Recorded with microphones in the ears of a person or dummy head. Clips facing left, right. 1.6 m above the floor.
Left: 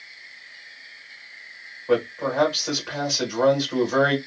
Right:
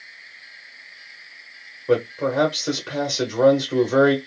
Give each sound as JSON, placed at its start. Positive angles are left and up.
{"t": 1.9, "sound": "a man speaking", "side_deg": -40, "distance_m": 1.0}